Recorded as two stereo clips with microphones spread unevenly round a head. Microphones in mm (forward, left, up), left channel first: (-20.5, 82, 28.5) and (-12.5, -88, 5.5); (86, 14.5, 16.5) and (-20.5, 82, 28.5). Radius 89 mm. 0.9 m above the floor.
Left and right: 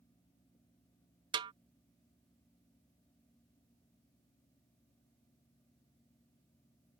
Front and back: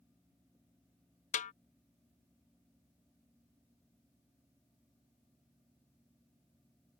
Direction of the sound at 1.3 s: 30° right.